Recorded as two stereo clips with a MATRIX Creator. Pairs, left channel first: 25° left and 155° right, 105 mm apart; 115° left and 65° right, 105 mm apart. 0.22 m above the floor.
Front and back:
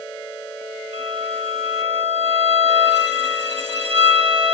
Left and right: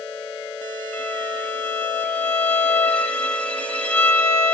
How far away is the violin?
About 0.7 m.